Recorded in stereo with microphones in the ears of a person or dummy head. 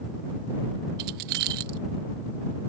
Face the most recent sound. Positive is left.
turn(degrees=-55)  # may be behind; listen again after turning